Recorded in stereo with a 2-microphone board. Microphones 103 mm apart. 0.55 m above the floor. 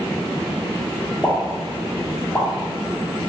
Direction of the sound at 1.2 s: 15° left (ahead or behind).